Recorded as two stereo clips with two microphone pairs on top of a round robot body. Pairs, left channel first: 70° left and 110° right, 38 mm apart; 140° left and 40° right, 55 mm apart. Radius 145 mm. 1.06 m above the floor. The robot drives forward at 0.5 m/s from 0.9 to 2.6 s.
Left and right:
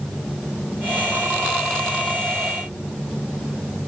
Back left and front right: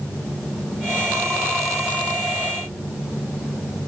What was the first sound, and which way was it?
Only background noise.